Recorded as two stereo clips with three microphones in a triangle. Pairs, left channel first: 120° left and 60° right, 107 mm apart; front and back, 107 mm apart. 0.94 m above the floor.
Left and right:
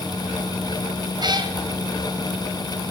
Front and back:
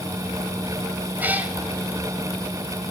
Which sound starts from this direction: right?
A cat meowing, at 1.2 s.